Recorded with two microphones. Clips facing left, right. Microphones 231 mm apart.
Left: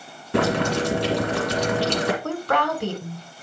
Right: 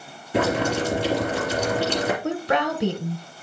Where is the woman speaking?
20° right (ahead or behind), 1.3 m.